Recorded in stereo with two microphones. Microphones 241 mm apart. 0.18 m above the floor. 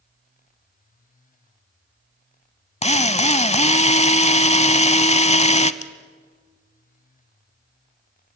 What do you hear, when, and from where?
2.8 s a drill: 30° left (ahead or behind), 0.8 m
5.8 s scissors: 80° left, 1.3 m